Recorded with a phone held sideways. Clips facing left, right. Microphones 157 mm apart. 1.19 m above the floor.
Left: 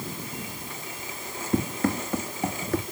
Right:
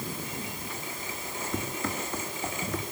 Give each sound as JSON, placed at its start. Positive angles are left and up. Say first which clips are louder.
{"t": 1.5, "sound": "running footsteps", "louder": "left 9 dB", "side_deg": 60, "distance_m": 3.5}